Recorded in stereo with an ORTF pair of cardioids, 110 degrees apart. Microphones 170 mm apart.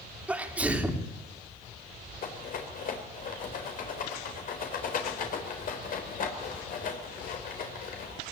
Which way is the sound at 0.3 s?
10° right.